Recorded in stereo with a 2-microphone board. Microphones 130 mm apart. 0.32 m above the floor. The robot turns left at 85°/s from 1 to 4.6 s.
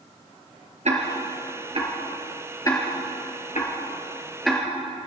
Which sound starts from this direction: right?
Ticking, at 0.8 s.